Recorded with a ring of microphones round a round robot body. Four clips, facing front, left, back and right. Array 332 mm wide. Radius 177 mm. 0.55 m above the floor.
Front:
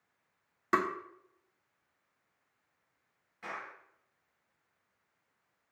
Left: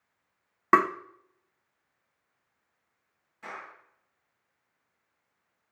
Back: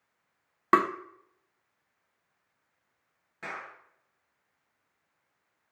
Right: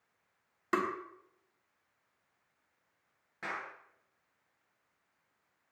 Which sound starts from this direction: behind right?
A clap, at 3.4 s.